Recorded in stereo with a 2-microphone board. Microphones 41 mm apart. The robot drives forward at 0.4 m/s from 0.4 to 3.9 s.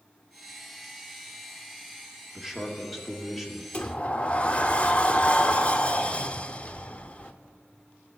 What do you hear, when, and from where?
2.4 s a man speaking: 5° right (ahead or behind), 1.3 m
3.7 s a sliding door: 30° left (ahead or behind), 0.5 m; by 7.3 s 25° left (ahead or behind), 0.6 m